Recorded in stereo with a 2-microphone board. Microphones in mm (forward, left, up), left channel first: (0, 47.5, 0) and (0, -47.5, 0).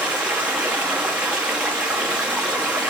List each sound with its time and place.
0.0 s running water: 10° right (ahead or behind), 1.0 m